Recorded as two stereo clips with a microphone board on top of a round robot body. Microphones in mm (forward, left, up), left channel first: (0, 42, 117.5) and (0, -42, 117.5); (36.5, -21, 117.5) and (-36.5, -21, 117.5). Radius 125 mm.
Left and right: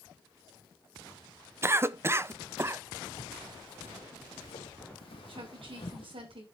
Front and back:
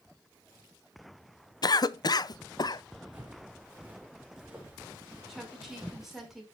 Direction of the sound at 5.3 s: 95° right.